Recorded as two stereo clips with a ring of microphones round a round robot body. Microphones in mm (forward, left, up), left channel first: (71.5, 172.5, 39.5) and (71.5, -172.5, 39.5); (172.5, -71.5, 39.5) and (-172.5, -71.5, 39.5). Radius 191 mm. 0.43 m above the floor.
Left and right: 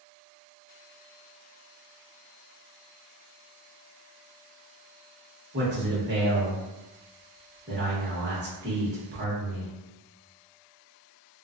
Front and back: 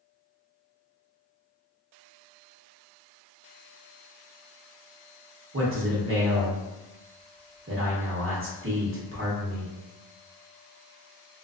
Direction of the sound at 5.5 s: 140° right.